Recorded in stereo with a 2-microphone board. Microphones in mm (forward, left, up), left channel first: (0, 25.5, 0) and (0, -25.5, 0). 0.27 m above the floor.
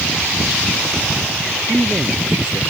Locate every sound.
1.7 s a man speaking: 20° right (ahead or behind)